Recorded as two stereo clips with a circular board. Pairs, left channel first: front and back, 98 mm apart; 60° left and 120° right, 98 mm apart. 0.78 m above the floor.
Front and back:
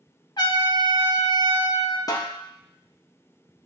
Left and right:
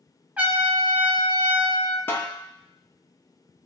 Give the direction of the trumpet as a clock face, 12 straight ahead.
2 o'clock.